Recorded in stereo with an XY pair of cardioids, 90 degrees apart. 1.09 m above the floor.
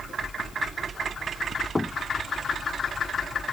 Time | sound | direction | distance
1.8 | knocking | 20° left | ?